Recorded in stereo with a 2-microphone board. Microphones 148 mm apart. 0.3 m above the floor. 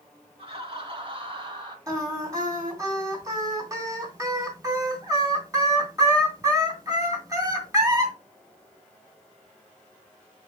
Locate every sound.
0.4 s laughter: 40° right (ahead or behind), 3 m; by 1.8 s 30° right (ahead or behind), 2.5 m
1.9 s singing: 25° right (ahead or behind), 2.5 m